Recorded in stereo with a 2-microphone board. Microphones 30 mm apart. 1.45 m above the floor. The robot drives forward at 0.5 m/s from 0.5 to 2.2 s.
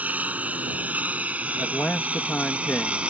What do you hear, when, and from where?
0.0 s a lawn mower: 70° right (ahead or behind); by 3.1 s 45° right (ahead or behind)
1.6 s a man speaking: 65° left (ahead or behind); by 3.0 s 60° left (ahead or behind)